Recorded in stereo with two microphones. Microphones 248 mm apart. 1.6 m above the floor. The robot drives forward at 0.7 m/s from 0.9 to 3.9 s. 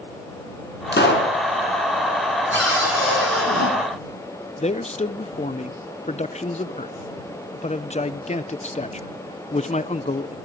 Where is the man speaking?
25° left (ahead or behind), 0.6 m.